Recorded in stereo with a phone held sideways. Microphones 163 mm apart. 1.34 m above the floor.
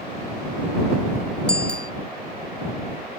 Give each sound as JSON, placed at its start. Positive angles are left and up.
{"t": 1.5, "sound": "a bicycle bell", "side_deg": 80}